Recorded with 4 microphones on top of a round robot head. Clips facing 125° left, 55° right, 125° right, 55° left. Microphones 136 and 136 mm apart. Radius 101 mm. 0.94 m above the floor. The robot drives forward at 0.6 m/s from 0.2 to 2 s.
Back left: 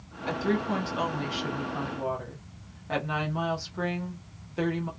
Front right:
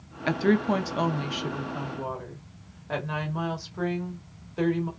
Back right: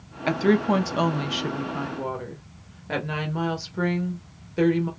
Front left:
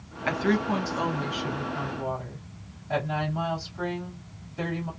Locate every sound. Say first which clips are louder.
0.3 s a woman speaking: front right 5 dB, back right 5 dB; 65° right, 0.7 m; by 4.9 s 145° right, 1.0 m